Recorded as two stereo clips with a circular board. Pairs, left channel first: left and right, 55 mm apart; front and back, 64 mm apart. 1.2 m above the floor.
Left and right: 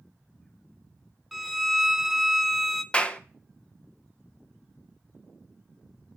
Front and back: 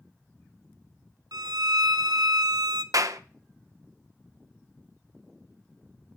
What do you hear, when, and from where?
1.3 s a violin: straight behind, 0.5 m
2.9 s a clap: 155° left, 0.7 m